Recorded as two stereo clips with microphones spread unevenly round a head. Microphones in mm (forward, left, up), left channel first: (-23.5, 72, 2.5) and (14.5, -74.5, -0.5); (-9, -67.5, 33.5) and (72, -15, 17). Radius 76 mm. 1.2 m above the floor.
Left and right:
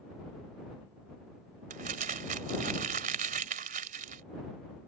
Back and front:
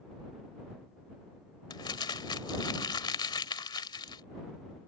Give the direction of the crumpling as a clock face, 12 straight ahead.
4 o'clock.